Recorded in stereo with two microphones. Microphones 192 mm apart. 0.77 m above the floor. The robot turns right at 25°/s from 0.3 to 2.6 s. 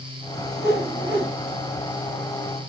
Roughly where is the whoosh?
Left.